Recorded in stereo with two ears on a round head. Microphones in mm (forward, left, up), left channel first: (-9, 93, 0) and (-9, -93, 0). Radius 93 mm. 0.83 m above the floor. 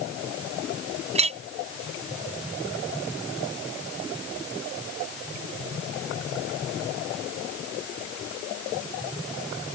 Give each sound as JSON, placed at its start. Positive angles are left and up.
{"t": 1.1, "sound": "a clink", "side_deg": -35}